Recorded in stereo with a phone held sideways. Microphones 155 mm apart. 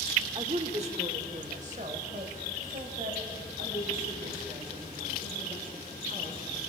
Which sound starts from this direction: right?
A woman speaking, at 0.3 s.